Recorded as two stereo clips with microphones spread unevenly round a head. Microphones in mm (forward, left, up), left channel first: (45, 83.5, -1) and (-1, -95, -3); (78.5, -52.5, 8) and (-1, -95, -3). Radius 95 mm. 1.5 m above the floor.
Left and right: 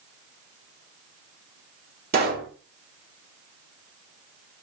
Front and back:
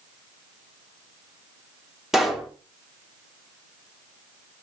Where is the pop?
65° right, 2 m.